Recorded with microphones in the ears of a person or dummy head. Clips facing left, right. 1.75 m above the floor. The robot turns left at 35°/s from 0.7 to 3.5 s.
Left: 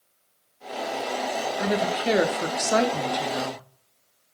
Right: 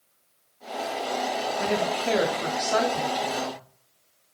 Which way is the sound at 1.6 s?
165° left.